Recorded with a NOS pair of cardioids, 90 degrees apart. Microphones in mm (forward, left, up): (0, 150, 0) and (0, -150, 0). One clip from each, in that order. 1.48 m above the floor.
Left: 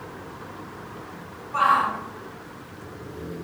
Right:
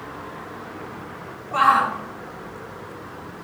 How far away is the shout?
About 1.3 m.